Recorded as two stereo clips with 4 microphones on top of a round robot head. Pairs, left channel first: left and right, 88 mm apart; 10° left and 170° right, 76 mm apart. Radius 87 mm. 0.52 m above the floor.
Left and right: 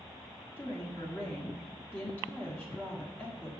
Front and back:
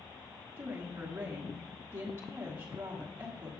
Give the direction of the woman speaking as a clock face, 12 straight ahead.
7 o'clock.